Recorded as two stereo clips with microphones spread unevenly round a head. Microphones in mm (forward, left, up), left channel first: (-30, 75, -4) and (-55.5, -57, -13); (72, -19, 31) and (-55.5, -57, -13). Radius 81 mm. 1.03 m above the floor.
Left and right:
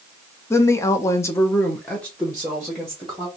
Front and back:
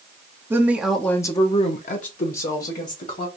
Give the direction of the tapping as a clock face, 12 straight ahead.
No tapping in this recording.